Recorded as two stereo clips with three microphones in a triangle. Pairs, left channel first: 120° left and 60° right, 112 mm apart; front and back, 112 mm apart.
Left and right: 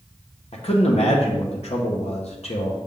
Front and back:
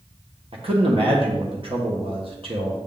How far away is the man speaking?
About 1.1 m.